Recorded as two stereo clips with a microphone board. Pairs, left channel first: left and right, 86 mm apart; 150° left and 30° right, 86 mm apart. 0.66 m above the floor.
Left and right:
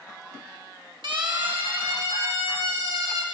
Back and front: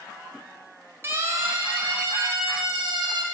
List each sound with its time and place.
1.0 s a siren: 85° right, 4 m; by 3.2 s 60° right, 4.5 m